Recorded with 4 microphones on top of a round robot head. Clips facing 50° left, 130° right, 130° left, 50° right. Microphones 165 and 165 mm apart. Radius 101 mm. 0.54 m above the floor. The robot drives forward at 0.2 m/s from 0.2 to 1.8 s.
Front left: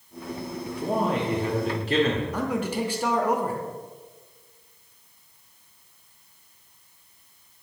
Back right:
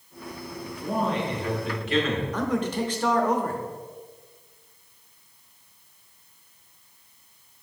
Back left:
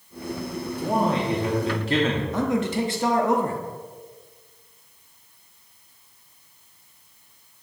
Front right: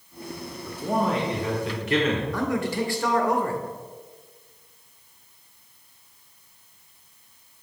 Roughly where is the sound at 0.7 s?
Left.